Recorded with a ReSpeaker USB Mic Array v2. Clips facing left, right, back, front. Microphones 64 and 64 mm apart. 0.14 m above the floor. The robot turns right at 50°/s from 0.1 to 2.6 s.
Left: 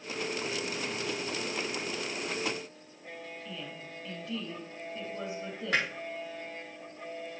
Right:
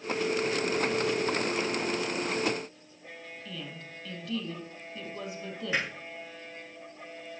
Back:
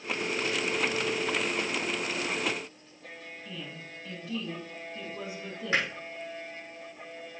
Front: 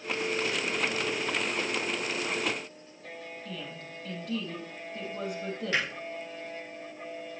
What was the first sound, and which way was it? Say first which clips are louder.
A woman speaking: even, front 2 dB; 30° left.